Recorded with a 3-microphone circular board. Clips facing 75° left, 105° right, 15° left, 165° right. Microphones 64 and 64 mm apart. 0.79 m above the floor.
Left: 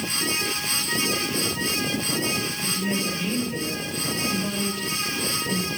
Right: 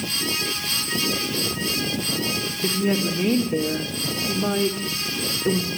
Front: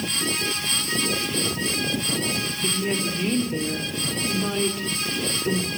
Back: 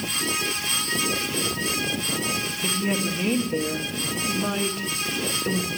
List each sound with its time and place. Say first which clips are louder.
2.6 s a woman speaking: right 7 dB, back 1 dB; 85° right, 2.5 m